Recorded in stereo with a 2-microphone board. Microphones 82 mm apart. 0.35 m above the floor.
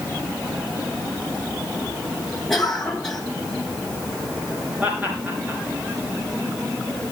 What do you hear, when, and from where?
2.5 s a cough: 5° left (ahead or behind), 2.5 m
4.8 s laughter: 20° right (ahead or behind), 6 m